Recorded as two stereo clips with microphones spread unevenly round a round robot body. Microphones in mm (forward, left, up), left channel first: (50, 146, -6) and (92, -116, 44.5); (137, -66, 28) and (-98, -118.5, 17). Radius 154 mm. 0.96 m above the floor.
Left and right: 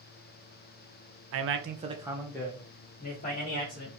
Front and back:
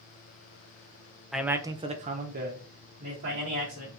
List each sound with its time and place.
1.3 s a man speaking: 80° right, 0.6 m; by 3.9 s 145° left, 1.4 m